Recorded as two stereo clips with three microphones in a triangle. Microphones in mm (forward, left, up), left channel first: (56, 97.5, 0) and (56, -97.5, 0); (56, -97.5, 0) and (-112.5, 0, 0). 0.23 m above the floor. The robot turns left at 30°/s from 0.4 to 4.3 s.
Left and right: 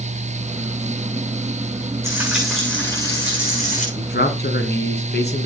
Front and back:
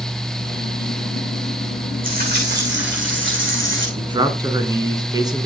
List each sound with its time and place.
2.0 s frying: 165° right, 9 m; by 3.9 s 140° left, 9 m
4.0 s a man speaking: 95° left, 2.5 m; by 5.5 s 85° left, 2.5 m